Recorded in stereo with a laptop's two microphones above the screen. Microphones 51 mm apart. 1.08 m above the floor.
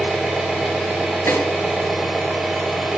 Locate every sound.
0.0 s an engine running: 5° right (ahead or behind), 3.5 m
1.3 s a snare drum: 75° left (ahead or behind), 2.5 m